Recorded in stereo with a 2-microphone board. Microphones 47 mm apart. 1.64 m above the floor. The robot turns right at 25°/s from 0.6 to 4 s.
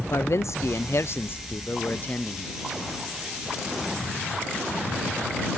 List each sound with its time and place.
0.1 s a man speaking: 110° left; by 2.5 s 160° left